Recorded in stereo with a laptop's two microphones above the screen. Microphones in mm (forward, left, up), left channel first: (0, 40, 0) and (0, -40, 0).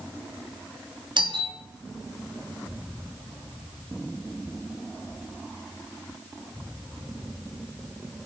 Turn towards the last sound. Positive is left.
turn(degrees=-70)  # may be behind; listen again after turning